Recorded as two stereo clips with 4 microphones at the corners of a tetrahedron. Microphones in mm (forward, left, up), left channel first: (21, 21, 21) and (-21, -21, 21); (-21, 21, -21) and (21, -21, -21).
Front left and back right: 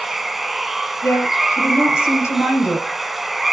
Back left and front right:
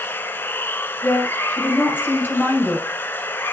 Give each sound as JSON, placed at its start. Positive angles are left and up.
{"t": 0.0, "sound": "running water", "azimuth_deg": 140, "distance_m": 0.7}
{"t": 1.0, "sound": "a woman speaking", "azimuth_deg": 80, "distance_m": 4.0}